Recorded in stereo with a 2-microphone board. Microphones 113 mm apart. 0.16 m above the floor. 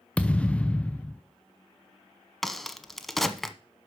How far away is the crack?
About 0.9 m.